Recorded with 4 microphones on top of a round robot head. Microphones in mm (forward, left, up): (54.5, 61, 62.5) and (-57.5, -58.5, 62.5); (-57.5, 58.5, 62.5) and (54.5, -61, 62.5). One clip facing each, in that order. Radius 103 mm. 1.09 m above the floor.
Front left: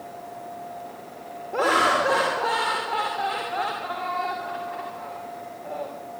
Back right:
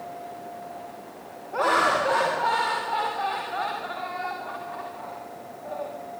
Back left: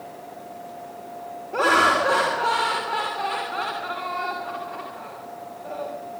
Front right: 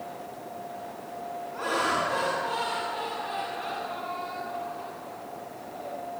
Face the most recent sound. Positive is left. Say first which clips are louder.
# front left 1 dB, back left 9 dB
turn(degrees=110)